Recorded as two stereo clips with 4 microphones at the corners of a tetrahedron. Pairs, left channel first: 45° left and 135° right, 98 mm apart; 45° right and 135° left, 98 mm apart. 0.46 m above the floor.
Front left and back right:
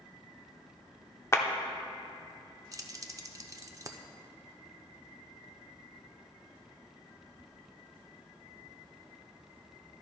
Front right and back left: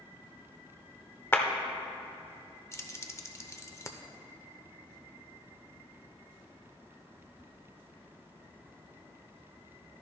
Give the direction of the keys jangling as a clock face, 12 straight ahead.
3 o'clock.